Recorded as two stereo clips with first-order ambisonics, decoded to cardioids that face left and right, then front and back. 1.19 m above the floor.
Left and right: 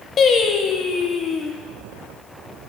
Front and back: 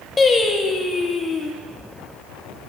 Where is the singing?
65° left, 0.6 m.